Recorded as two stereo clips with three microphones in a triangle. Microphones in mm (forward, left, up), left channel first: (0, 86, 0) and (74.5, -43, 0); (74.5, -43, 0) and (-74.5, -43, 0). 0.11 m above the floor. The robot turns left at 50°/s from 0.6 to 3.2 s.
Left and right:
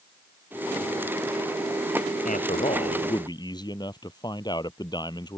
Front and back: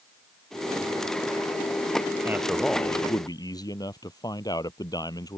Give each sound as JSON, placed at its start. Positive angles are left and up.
{"t": 2.2, "sound": "a man speaking", "azimuth_deg": 110}